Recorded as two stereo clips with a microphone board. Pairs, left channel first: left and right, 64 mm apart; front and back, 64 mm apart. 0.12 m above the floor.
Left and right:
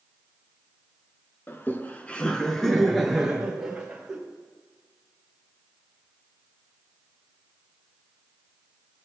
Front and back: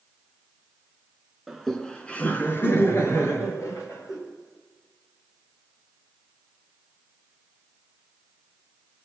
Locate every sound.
1.5 s laughter: 95° left, 1.2 m; by 4.2 s 20° right, 2 m